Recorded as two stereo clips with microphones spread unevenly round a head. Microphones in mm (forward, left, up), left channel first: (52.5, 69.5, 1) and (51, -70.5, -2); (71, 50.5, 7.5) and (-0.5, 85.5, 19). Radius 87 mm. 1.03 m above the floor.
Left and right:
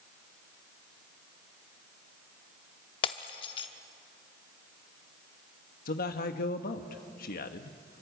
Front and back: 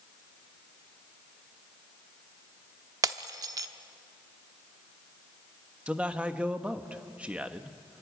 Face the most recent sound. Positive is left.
turn(degrees=75)